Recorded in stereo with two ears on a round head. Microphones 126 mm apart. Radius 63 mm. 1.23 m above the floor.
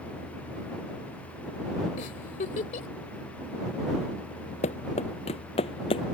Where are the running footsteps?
50° left (ahead or behind); by 6.0 s 40° left (ahead or behind).